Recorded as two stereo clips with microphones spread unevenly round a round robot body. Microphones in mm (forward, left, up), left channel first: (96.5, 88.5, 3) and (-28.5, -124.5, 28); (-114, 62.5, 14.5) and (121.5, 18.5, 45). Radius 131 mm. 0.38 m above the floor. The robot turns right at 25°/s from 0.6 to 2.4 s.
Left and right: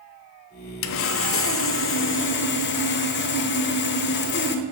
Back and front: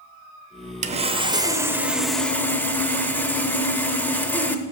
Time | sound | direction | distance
0.8 | sawing | 55° left | 0.8 m